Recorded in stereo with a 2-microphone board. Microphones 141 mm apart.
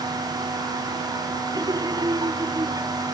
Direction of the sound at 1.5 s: 30° right (ahead or behind).